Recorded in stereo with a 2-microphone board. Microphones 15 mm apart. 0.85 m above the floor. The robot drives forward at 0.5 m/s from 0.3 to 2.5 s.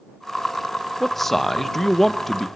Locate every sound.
1.0 s a man speaking: 15° left (ahead or behind), 0.7 m